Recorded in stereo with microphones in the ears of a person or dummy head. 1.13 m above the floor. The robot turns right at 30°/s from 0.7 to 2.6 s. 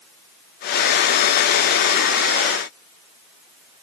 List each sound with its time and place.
Only background noise.